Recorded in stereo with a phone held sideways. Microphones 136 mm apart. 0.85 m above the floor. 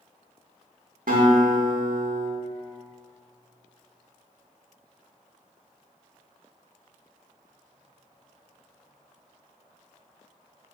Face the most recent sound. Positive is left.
turn(degrees=-85)